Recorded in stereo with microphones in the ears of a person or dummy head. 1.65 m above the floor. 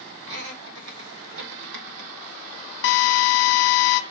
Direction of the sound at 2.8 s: 65° left (ahead or behind).